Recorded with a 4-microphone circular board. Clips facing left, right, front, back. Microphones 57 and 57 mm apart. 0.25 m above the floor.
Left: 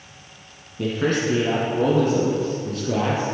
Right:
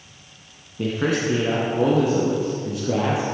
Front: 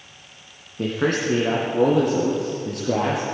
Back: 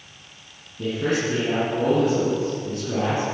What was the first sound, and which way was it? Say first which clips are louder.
A man speaking: even, front 1 dB; 10° right.